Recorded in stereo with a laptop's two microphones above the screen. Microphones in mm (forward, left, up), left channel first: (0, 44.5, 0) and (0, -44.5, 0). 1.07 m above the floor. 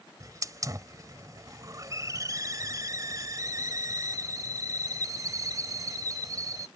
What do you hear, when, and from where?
0.2 s a hiss: 40° right (ahead or behind)